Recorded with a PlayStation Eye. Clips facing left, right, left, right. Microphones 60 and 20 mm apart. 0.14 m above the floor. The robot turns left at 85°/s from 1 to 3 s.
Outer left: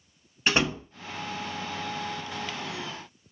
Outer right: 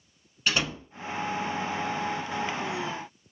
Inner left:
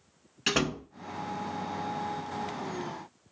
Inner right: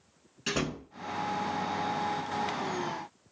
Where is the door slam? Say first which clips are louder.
Outer left 3 dB, inner left 4 dB; 30° left (ahead or behind), 0.8 m.